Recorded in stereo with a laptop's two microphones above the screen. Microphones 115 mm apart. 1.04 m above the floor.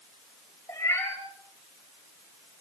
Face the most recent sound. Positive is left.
turn(degrees=20)  # may be behind; listen again after turning